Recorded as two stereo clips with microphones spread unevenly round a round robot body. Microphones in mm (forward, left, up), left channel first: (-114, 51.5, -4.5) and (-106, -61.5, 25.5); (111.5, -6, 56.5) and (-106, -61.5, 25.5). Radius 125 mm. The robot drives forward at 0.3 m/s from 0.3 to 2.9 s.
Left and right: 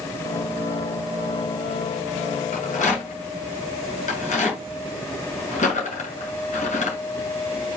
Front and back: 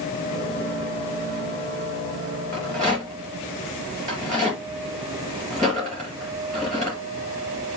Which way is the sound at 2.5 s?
95° left.